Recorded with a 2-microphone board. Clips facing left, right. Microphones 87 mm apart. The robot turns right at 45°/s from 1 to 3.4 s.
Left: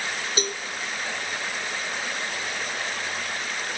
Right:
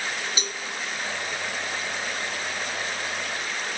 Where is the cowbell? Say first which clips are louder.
Left 5 dB; 50° left (ahead or behind), 1.4 m.